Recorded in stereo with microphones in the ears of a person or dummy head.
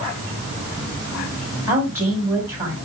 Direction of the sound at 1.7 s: 10° right (ahead or behind).